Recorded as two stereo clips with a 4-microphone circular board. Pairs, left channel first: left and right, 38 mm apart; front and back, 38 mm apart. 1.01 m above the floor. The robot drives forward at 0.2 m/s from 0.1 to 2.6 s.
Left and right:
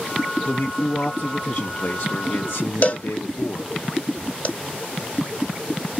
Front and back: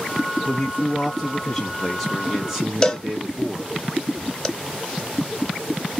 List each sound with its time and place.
0.5 s a man speaking: 70° left, 0.8 m; by 3.8 s 105° left, 0.8 m
2.8 s a cowbell: 60° left, 0.6 m